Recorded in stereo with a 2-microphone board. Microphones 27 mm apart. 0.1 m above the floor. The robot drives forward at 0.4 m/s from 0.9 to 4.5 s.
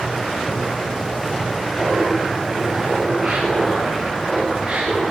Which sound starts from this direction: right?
Laughter, at 1.8 s.